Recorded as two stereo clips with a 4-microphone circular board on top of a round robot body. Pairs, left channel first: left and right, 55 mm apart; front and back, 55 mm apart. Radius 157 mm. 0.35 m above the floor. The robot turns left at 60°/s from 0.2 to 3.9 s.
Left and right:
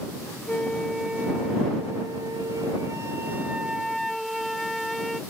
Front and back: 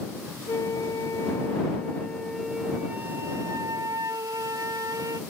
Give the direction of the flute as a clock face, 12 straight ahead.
11 o'clock.